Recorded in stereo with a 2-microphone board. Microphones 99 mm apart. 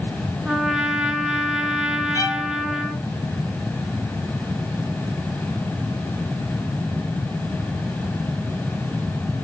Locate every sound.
0.5 s a trumpet: 5° right (ahead or behind), 1.2 m
2.1 s a violin: 35° left (ahead or behind), 4 m